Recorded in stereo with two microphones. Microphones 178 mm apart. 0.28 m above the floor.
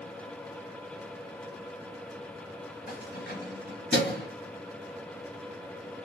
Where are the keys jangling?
65° left (ahead or behind), 1.9 m.